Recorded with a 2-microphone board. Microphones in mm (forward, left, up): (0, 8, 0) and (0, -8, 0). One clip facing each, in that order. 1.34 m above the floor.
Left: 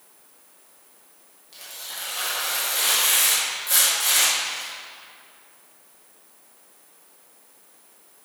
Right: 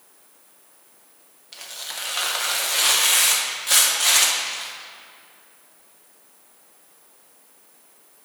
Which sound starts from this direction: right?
Tearing paper, at 1.5 s.